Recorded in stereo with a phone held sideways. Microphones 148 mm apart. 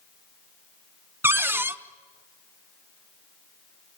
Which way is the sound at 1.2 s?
15° right (ahead or behind).